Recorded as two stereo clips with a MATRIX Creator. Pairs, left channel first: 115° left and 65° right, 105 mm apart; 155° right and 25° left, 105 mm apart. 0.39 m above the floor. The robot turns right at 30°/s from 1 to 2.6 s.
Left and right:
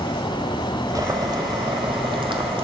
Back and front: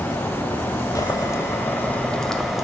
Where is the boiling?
115° right, 1.4 m; by 2.6 s 65° right, 1.4 m.